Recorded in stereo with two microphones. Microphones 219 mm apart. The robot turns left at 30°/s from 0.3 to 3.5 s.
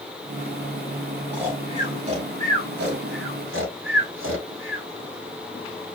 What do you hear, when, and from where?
1.3 s snoring: 5° right (ahead or behind), 3 m; by 4.8 s 70° right (ahead or behind), 3 m